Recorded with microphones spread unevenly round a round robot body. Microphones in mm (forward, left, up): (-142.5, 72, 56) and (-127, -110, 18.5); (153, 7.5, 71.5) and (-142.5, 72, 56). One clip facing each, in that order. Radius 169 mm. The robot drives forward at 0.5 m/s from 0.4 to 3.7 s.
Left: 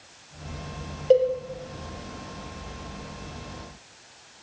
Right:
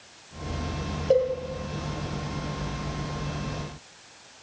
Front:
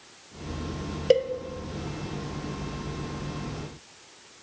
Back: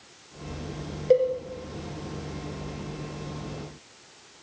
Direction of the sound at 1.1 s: 25° left.